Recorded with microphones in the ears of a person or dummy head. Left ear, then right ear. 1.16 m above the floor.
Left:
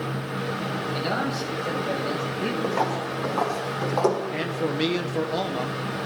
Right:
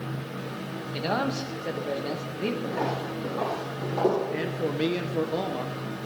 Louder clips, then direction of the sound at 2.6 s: Left 4 dB; 40° left (ahead or behind).